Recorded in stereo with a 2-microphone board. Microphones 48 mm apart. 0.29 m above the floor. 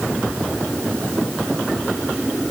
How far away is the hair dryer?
No hair dryer in this recording.